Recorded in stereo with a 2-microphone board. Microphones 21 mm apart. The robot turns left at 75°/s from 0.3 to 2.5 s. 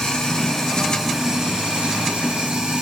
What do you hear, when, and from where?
0.0 s running water: 45° left, 0.8 m; by 2.8 s 120° right, 0.8 m